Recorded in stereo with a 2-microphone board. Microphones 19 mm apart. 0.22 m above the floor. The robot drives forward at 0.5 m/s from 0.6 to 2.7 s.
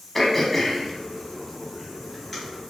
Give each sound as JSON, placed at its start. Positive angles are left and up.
{"t": 0.1, "sound": "throat clearing", "side_deg": 10, "distance_m": 0.5}